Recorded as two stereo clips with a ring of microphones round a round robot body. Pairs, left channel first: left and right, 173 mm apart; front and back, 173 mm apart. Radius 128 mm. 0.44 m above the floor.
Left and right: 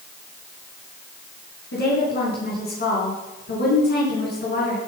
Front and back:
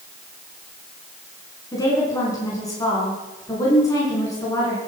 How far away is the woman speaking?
About 5.5 m.